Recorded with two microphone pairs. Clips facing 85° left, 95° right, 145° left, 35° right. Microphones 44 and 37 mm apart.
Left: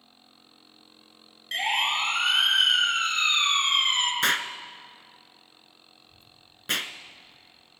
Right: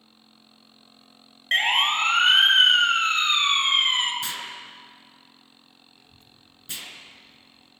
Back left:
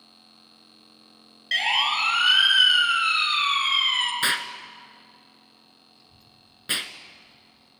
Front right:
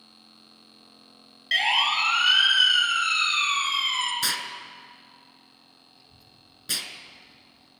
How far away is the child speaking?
About 3 m.